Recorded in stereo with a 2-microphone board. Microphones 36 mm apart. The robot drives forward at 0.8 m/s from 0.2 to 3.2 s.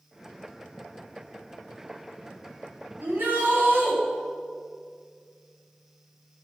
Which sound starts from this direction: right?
A shout, at 3.0 s.